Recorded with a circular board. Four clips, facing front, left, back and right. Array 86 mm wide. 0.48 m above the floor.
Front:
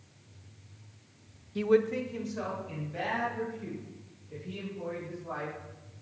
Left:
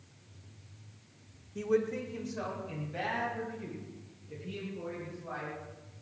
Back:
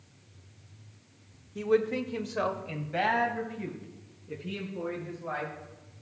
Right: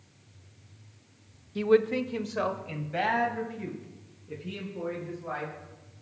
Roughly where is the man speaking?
Ahead right.